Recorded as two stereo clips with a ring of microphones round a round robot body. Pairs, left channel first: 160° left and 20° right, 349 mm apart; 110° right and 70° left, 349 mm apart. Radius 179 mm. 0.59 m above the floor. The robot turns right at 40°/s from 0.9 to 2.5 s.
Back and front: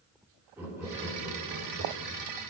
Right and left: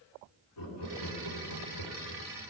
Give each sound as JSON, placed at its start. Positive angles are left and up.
{"t": 0.6, "sound": "laughter", "azimuth_deg": -105, "distance_m": 2.0}